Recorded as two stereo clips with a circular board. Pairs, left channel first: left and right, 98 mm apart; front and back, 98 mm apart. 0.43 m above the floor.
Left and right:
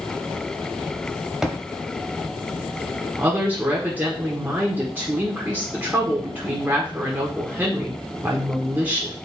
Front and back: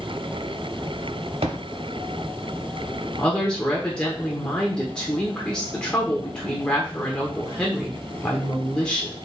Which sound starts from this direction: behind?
A thud, at 1.4 s.